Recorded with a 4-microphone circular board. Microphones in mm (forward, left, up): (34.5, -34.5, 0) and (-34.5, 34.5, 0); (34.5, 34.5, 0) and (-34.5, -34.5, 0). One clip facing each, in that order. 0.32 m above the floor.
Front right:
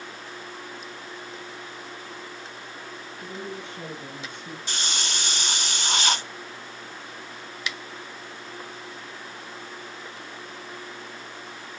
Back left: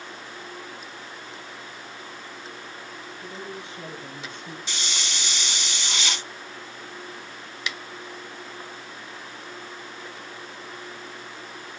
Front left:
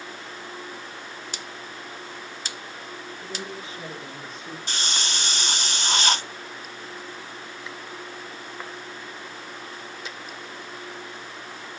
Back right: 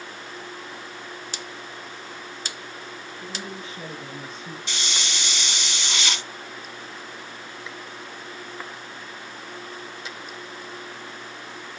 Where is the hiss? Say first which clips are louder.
Front right 3 dB, front left 2 dB; straight ahead, 0.6 m.